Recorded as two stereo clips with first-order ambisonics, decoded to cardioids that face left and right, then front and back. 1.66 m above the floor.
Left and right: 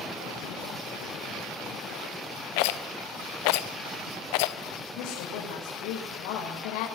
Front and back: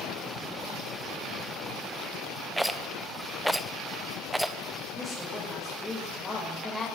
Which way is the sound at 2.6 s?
95° left.